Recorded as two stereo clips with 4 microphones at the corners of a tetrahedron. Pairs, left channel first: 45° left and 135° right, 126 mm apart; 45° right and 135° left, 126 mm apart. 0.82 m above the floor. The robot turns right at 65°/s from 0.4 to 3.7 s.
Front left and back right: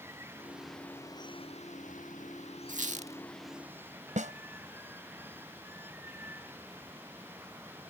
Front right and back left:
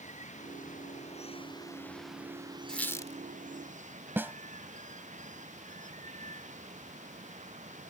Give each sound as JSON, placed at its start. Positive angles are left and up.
{"t": 0.0, "sound": "running water", "azimuth_deg": -65}
{"t": 2.7, "sound": "a squeak", "azimuth_deg": -130}
{"t": 4.2, "sound": "a snare drum", "azimuth_deg": -150}